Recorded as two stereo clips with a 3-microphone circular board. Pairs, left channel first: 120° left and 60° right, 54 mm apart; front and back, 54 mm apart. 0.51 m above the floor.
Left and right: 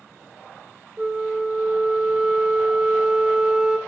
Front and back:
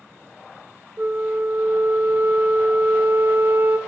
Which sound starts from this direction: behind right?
A flute, at 1.0 s.